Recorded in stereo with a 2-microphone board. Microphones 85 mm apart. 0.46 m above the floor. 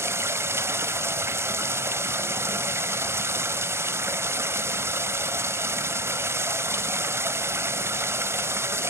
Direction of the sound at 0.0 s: 30° right (ahead or behind).